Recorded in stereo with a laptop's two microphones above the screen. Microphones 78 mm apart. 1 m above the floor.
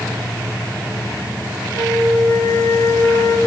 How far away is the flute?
About 4.5 m.